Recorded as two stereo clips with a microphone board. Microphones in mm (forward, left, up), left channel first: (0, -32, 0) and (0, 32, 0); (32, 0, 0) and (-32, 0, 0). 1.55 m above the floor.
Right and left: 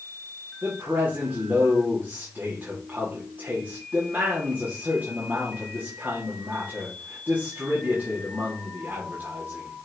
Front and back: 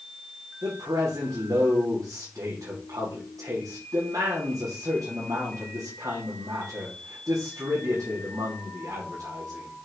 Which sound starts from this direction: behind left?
A man speaking, at 0.6 s.